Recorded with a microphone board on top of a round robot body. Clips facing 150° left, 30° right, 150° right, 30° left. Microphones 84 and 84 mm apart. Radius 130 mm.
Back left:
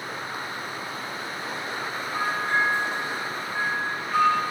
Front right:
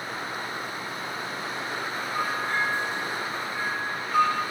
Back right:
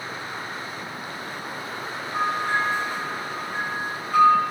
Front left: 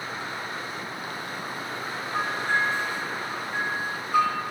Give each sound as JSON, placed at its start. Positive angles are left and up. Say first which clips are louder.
{"t": 2.1, "sound": "a bell", "louder": "back left 3 dB, back right 2 dB", "azimuth_deg": 160, "distance_m": 2.0}